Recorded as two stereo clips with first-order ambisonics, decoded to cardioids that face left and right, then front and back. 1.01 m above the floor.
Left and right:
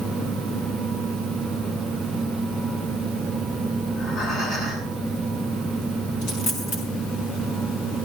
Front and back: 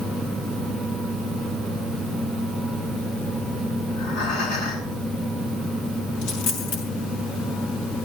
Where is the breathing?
40° left, 10 m.